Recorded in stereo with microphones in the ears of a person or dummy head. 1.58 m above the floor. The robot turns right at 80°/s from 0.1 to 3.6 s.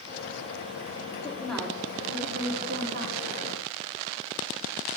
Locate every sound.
1.2 s a woman speaking: 150° left, 3.5 m; by 3.4 s 35° right, 3.5 m